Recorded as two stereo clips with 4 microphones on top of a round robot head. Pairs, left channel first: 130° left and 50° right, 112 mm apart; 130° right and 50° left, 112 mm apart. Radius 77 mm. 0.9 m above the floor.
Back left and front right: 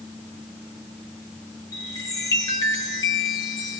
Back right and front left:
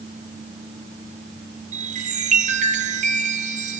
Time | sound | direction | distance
1.7 | a chime | 70° left | 3.5 m